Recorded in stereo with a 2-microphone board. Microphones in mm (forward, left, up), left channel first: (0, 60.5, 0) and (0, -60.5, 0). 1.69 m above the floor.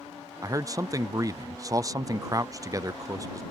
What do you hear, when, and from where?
0.4 s a man speaking: 30° right (ahead or behind)